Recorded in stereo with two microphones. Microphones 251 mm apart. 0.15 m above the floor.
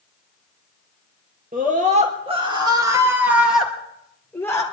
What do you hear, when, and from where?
1.5 s a scream: 35° right (ahead or behind), 3 m; by 4.6 s 10° left (ahead or behind), 3.5 m